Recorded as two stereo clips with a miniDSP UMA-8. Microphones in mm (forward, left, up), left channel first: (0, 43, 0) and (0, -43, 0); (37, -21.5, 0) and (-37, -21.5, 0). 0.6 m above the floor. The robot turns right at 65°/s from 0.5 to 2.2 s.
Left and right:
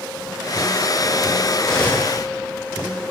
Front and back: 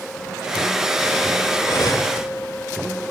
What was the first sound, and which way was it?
Cutlery clinking, 5° left.